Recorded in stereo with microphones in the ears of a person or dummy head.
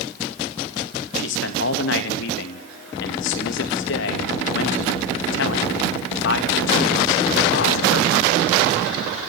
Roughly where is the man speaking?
Left.